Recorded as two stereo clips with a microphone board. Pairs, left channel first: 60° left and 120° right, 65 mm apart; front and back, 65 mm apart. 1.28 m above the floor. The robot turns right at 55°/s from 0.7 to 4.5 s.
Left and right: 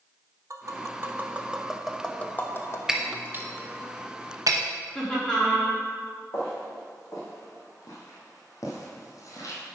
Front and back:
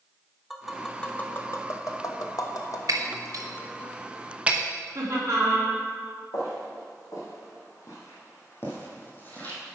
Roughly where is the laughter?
Behind left.